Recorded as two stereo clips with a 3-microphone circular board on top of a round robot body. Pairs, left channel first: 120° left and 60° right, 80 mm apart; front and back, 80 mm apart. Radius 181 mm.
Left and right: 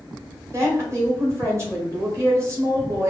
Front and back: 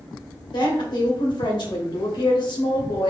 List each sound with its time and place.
0.5 s a woman speaking: 5° right, 1.8 m